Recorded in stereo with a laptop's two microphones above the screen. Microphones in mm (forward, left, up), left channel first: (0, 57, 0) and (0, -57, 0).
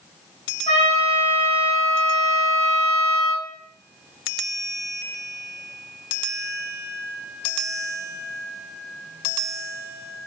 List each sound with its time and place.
0.7 s a trumpet: 70° left (ahead or behind), 2 m